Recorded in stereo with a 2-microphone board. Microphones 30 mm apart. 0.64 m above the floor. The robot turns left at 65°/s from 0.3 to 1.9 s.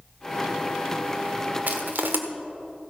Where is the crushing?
65° right (ahead or behind), 1.3 m; by 2.2 s 75° right (ahead or behind), 1.3 m.